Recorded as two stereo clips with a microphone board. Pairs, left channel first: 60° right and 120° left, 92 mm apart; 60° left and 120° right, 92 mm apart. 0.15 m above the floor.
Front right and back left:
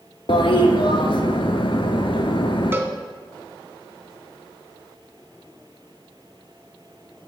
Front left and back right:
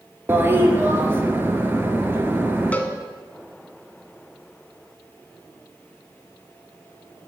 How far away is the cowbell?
About 0.6 m.